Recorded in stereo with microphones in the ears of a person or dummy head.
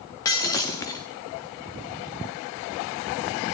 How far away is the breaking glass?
About 1.0 m.